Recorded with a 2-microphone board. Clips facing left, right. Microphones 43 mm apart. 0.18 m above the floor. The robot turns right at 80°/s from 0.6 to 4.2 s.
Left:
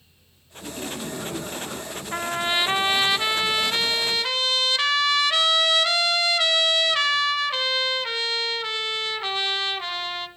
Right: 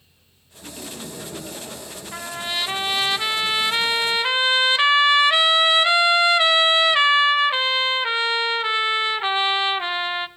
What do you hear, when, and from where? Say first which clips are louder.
0.6 s laughter: left 4 dB; 10° left, 2 m; by 2.0 s 120° left, 2 m
2.1 s a trumpet: left 4 dB; 25° left (ahead or behind), 0.5 m; by 10.3 s 25° right (ahead or behind), 0.5 m